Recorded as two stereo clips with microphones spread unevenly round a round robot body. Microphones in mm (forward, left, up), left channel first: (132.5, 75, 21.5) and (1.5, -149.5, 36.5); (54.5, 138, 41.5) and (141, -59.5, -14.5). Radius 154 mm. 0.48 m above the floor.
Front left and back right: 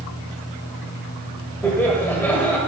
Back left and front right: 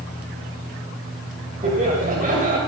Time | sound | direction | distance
1.6 | laughter | 25° right | 2 m